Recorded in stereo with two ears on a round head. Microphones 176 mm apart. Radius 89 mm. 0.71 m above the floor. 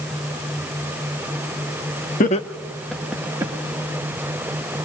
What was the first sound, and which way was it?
Laughter, 40° left (ahead or behind).